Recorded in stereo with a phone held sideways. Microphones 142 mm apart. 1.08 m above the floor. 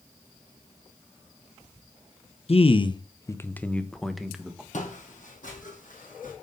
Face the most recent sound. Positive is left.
turn(degrees=70)  # may be behind; listen again after turning